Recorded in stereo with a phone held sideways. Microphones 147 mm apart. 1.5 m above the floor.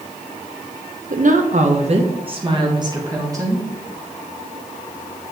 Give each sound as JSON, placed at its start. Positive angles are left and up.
{"t": 1.1, "sound": "a woman speaking", "side_deg": -65, "distance_m": 0.9}